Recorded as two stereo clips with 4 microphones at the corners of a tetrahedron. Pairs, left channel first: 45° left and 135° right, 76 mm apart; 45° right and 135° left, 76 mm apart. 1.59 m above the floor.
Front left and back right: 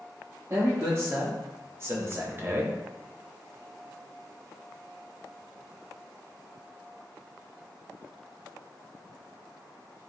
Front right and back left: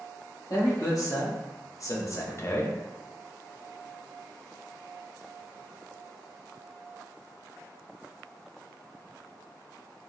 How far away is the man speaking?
About 1.7 m.